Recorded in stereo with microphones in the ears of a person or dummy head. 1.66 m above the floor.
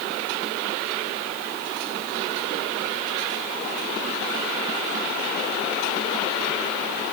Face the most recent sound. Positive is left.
No sound to turn to.